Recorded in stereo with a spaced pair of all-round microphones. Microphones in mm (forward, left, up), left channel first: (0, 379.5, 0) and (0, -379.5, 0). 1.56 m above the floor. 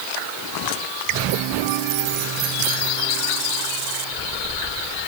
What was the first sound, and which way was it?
Only background noise.